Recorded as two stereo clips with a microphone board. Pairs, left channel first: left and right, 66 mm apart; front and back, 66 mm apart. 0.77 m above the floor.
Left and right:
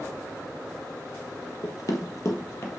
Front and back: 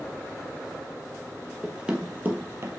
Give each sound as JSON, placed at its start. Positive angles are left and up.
{"t": 1.6, "sound": "running footsteps", "azimuth_deg": 100, "distance_m": 1.3}